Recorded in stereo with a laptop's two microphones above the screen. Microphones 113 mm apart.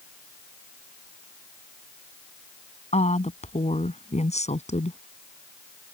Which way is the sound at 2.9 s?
75° left (ahead or behind).